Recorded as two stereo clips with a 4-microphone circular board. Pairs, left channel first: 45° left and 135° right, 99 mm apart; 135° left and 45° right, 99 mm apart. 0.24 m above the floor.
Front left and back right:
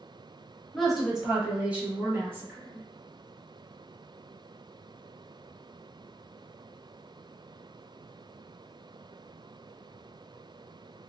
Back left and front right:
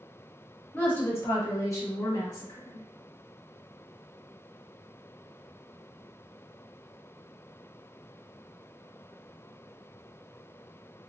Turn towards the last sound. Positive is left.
turn(degrees=170)